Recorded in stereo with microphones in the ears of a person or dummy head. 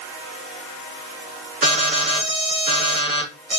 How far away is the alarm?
About 3.5 m.